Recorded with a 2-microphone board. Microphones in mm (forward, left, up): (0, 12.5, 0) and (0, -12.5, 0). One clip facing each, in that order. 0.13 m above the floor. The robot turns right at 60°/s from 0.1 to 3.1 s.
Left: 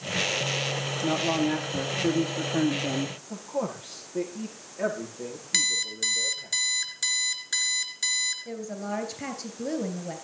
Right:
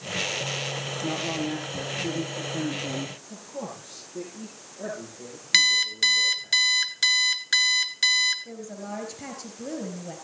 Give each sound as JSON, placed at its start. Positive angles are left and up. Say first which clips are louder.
{"t": 1.0, "sound": "a man speaking", "louder": "left 4 dB", "azimuth_deg": 10, "distance_m": 3.0}
{"t": 3.3, "sound": "a man speaking", "louder": "left 6 dB", "side_deg": 70, "distance_m": 8.0}
{"t": 5.5, "sound": "an alarm clock", "louder": "right 7 dB", "side_deg": -30, "distance_m": 1.3}
{"t": 8.4, "sound": "a woman speaking", "louder": "left 3 dB", "side_deg": 20, "distance_m": 2.5}